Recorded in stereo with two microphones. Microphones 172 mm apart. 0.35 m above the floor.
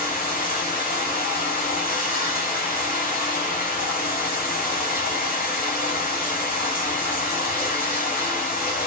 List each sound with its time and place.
0.0 s running water: 55° left (ahead or behind), 2.5 m